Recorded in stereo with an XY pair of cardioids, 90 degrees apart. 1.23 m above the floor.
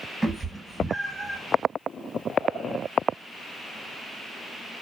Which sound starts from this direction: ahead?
A cat meowing, at 0.2 s.